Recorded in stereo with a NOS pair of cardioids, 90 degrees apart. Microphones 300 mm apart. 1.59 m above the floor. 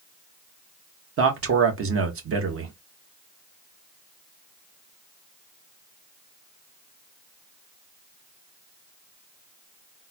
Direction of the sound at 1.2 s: 45° right.